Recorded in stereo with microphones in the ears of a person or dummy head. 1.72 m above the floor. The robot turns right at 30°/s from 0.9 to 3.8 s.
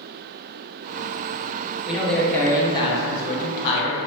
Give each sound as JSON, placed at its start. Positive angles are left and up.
{"t": 1.9, "sound": "a man speaking", "azimuth_deg": 0, "distance_m": 0.6}